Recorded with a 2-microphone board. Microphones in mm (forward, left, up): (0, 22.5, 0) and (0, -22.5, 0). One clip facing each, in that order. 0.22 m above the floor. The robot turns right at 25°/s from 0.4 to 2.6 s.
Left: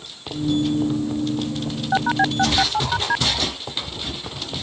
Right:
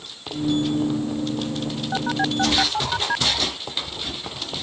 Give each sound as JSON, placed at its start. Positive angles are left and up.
{"t": 1.9, "sound": "a phone buzzing", "side_deg": 25}